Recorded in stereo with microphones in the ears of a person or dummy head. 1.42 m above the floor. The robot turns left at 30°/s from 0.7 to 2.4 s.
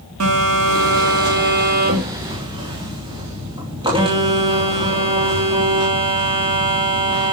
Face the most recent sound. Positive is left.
turn(degrees=-160)